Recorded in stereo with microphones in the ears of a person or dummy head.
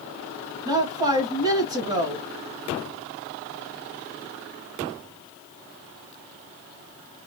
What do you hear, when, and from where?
0.7 s a woman speaking: 25° right (ahead or behind), 1.3 m